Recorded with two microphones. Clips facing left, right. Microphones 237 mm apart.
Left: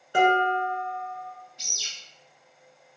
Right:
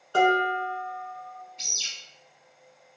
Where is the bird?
20° right (ahead or behind), 1.4 m.